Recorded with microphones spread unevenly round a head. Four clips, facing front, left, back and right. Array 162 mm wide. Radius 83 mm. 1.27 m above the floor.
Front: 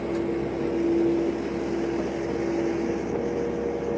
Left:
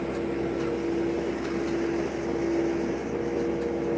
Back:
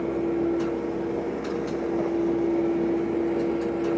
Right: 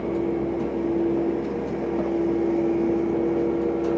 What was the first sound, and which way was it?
Only background noise.